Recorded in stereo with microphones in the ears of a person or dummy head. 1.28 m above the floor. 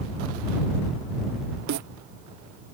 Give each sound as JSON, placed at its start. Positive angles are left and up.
{"t": 1.7, "sound": "a snare drum", "side_deg": -60}